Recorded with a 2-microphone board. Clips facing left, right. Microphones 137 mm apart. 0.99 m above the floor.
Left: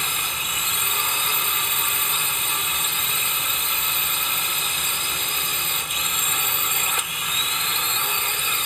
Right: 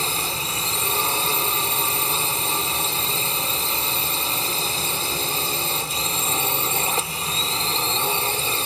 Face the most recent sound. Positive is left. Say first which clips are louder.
# right 4 dB
turn(degrees=-35)  # may be behind; listen again after turning